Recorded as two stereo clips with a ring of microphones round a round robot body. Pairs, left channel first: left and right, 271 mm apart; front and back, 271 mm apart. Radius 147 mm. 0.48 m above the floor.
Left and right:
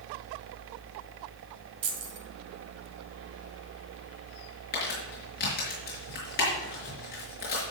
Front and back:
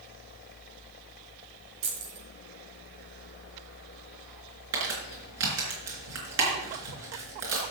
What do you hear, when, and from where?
1.8 s keys jangling: 130° right, 2 m
4.7 s crumpling: 150° left, 5 m